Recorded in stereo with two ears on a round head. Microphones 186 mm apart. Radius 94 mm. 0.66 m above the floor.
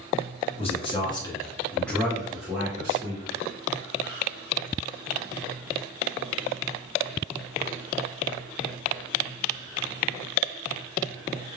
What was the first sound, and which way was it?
A man speaking, 30° left (ahead or behind).